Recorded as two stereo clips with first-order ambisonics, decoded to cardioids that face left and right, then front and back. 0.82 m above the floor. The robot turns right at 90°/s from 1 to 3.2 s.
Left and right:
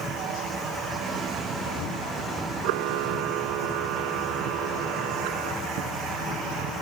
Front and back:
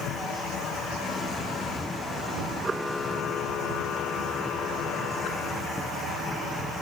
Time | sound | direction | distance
2.6 | a camera shutter | 110° right | ?